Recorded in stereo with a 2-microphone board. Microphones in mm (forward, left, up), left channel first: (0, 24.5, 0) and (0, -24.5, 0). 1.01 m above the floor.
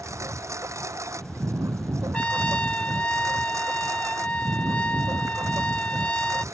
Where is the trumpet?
25° left (ahead or behind).